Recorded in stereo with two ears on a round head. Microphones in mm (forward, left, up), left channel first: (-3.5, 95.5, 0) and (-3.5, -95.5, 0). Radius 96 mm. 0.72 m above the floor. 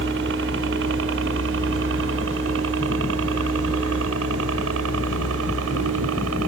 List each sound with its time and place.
0.0 s a helicopter: 55° right (ahead or behind); by 6.5 s 65° right (ahead or behind)